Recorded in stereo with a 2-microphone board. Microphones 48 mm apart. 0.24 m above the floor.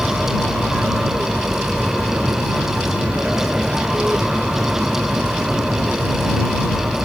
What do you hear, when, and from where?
0.0 s an aircraft: 20° right (ahead or behind)